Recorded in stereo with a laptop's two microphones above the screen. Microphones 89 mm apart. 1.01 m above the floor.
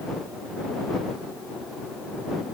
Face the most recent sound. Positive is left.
No sound to turn to.